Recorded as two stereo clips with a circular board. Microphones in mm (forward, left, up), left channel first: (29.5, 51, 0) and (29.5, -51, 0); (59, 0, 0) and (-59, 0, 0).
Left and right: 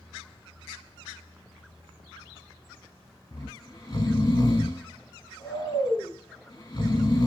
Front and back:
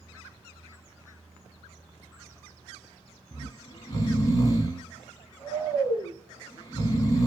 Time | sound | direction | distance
3.3 | snoring | 45° left | 1.2 m